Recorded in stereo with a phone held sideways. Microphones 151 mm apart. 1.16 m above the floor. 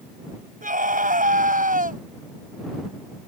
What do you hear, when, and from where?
0.6 s a scream: 65° right (ahead or behind)